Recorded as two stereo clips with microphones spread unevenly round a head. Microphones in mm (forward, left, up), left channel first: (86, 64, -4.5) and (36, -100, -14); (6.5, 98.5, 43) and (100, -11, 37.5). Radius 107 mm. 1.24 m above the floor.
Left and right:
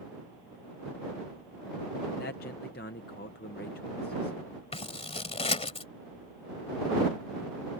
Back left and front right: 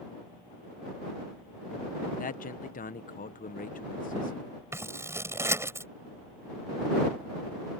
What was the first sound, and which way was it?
A man speaking, 115° left.